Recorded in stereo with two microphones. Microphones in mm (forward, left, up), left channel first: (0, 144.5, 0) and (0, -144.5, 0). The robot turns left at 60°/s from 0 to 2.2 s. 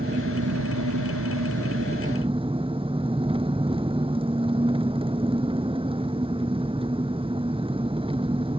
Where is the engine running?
30° right; by 8.6 s 160° right.